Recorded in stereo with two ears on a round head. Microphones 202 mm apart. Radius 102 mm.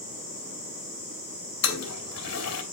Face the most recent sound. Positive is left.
turn(degrees=70)  # may be behind; listen again after turning